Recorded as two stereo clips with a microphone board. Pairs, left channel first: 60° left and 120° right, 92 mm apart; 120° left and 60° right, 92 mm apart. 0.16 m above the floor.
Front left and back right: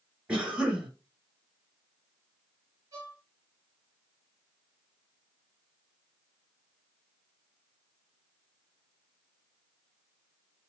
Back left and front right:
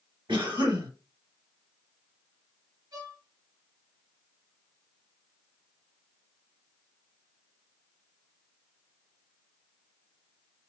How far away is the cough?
About 2.5 m.